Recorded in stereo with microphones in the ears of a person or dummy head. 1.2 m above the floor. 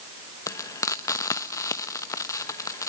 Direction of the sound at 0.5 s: 15° left (ahead or behind).